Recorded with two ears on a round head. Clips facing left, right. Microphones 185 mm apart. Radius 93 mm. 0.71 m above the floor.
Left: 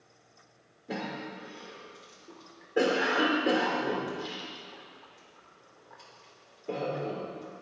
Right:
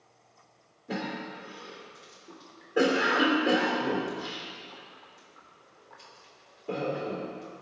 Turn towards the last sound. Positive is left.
turn(degrees=0)  # may be behind; listen again after turning